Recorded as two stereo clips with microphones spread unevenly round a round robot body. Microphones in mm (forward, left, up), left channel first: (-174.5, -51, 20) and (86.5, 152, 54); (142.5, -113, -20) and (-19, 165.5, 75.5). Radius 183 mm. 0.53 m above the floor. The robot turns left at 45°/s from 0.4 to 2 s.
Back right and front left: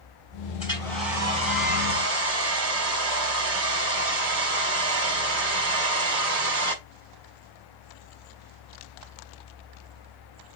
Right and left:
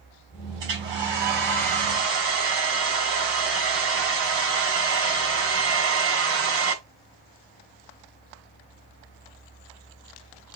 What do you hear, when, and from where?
0.6 s a hair dryer: 145° left, 5.5 m; by 6.8 s 80° left, 5.5 m